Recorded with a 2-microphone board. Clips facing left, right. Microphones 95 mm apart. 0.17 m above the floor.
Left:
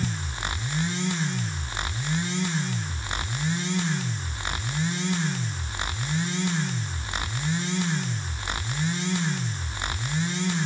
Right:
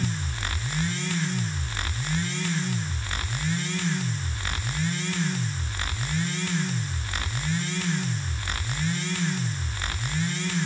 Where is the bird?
I don't hear a bird.